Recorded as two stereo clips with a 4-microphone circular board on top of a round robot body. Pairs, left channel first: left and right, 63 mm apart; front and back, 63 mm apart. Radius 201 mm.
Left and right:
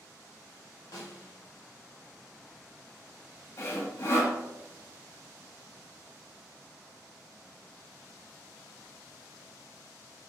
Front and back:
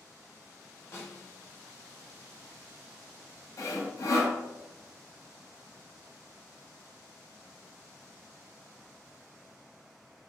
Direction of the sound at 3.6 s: 40° left.